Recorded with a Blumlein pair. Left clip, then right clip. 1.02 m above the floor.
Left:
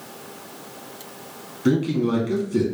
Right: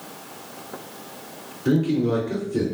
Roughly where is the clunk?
I don't hear a clunk.